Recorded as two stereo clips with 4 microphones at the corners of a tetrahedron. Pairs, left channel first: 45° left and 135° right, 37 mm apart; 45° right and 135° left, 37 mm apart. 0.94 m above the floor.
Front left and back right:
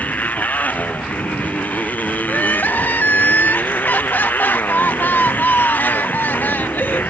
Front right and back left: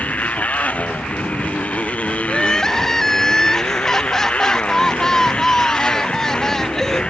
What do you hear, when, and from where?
0.0 s a motorcycle: 5° left; by 7.1 s 15° left
2.3 s crying: 30° left